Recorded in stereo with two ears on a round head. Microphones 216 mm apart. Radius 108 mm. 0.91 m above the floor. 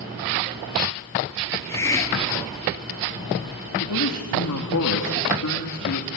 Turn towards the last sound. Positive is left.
turn(degrees=70)  # may be behind; listen again after turning